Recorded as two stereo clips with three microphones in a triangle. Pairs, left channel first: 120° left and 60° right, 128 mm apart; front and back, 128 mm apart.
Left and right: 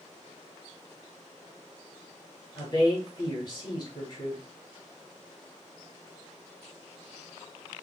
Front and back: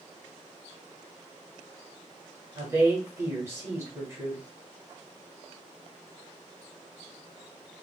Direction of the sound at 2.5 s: 130° left.